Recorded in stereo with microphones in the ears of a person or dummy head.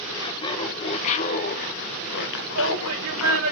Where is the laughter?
25° left (ahead or behind), 1.9 m; by 3.5 s 85° left, 1.5 m.